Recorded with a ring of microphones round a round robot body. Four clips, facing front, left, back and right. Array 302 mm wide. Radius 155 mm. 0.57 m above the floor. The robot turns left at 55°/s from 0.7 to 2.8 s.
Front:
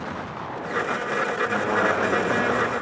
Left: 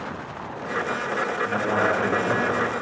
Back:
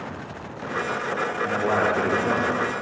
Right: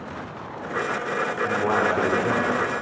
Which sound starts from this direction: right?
A man speaking, at 1.4 s.